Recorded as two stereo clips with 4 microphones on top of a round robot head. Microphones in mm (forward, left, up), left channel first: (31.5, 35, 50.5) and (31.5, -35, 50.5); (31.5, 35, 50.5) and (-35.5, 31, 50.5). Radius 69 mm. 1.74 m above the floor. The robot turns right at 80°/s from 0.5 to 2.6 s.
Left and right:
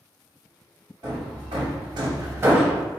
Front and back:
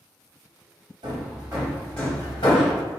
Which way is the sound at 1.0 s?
150° right.